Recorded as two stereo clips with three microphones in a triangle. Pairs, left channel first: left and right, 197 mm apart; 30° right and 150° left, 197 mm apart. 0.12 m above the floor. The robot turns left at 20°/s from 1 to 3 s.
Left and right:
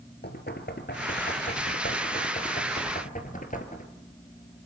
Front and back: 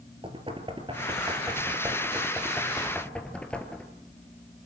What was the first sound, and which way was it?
Knocking, 95° left.